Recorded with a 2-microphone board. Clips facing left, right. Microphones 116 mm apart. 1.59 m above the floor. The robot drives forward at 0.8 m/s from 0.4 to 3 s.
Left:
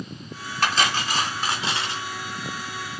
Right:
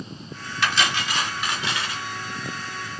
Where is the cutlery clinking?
45° left (ahead or behind), 2 m; by 2.0 s 30° left (ahead or behind), 3 m.